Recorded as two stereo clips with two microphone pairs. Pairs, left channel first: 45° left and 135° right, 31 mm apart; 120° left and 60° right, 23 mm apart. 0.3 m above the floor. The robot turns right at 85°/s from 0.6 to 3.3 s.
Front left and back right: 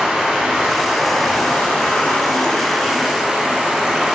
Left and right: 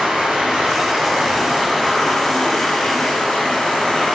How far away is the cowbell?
I don't hear a cowbell.